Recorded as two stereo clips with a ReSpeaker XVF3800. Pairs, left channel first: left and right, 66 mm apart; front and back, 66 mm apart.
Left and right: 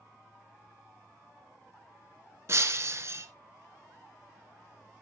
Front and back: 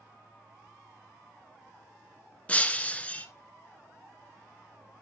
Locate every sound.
2.5 s breaking glass: 60° right, 0.9 m